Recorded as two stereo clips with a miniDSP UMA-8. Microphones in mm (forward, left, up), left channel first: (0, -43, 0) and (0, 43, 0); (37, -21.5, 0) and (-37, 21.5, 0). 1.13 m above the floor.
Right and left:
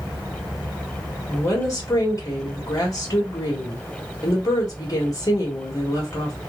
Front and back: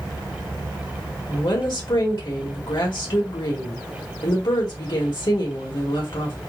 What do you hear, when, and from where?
1.3 s a woman speaking: 45° right, 1.5 m